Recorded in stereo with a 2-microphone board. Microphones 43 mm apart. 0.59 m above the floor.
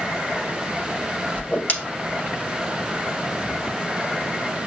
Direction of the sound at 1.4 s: 35° left (ahead or behind).